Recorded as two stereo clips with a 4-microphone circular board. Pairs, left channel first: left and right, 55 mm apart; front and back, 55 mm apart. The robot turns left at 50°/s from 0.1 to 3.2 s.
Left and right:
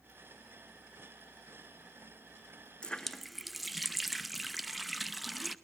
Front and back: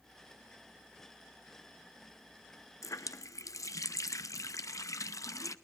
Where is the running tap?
20° left, 0.6 m; by 5.5 s straight ahead, 0.6 m.